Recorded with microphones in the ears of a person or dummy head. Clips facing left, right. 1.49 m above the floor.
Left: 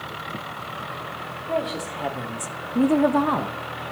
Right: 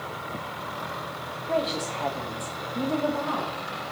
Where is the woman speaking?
5° right (ahead or behind), 1.6 m; by 3.9 s 60° left (ahead or behind), 1.4 m.